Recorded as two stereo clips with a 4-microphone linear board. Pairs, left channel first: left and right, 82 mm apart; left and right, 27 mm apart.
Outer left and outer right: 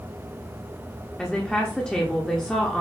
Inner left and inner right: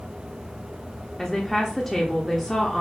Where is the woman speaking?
10° left (ahead or behind), 0.9 m.